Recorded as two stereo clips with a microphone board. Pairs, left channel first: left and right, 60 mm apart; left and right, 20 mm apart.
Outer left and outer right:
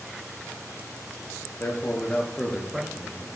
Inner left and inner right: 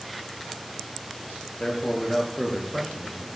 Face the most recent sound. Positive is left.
turn(degrees=-25)  # may be behind; listen again after turning